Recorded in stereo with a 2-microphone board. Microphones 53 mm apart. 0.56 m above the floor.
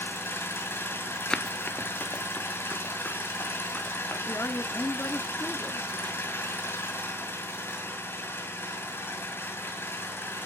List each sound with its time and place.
0.0 s an engine running: 40° left (ahead or behind), 2 m
1.3 s running footsteps: 15° left (ahead or behind), 0.5 m; by 4.2 s 30° left (ahead or behind), 2.5 m
4.3 s a woman speaking: 35° left (ahead or behind), 0.7 m